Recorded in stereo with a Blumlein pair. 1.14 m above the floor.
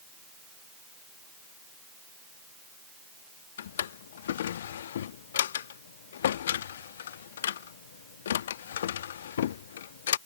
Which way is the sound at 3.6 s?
60° left.